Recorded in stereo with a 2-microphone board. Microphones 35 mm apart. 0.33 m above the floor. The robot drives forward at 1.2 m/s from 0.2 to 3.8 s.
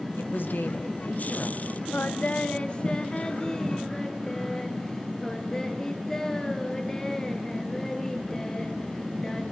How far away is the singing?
About 0.8 m.